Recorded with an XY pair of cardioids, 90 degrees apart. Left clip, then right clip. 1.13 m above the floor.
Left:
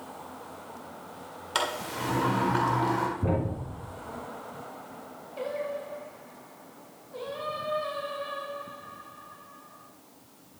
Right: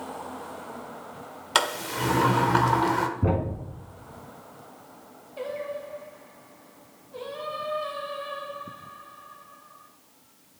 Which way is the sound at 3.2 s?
40° right.